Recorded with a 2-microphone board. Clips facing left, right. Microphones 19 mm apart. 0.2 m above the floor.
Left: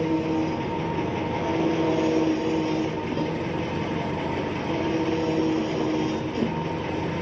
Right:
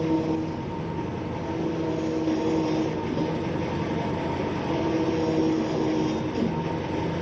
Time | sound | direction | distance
0.0 | an engine running | 65° left (ahead or behind) | 1.8 m